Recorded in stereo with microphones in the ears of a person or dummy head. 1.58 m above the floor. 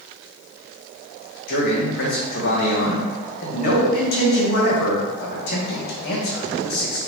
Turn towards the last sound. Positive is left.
turn(degrees=70)  # may be behind; listen again after turning